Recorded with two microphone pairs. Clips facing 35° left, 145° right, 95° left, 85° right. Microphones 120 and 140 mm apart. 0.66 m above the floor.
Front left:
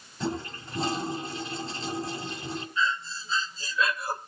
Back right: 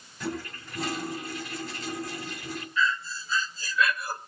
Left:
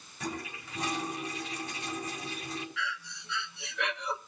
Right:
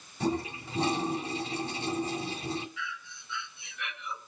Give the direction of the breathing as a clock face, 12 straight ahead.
9 o'clock.